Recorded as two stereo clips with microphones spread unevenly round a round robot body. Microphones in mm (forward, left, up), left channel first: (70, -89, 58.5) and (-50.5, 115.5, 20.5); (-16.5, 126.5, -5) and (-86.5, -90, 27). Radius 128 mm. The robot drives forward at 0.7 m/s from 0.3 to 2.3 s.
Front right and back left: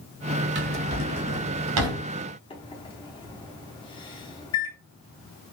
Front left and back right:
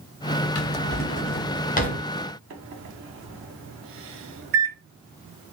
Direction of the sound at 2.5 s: 135° right.